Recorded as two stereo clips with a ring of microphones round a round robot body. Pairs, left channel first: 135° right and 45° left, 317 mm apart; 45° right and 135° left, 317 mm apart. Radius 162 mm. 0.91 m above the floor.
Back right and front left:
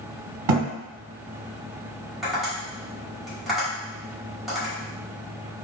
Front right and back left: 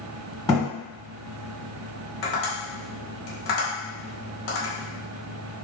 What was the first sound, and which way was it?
A thud, 35° left.